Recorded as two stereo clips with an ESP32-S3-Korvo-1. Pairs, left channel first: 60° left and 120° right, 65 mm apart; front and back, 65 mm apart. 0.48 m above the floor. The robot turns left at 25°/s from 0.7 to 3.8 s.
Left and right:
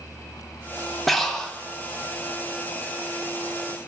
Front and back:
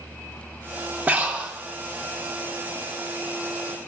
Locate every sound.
1.1 s breathing: 145° left, 0.6 m; by 1.5 s 130° left, 0.6 m